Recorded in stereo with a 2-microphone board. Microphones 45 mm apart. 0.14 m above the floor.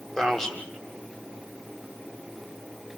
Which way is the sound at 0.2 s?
15° left (ahead or behind).